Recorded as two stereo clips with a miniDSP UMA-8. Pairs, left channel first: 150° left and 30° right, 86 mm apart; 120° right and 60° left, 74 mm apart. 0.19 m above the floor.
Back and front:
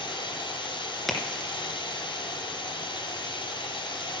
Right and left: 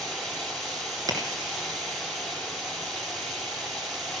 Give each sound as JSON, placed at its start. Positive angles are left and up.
{"t": 0.0, "sound": "running water", "azimuth_deg": 150, "distance_m": 4.5}
{"t": 1.1, "sound": "a crack", "azimuth_deg": 60, "distance_m": 2.5}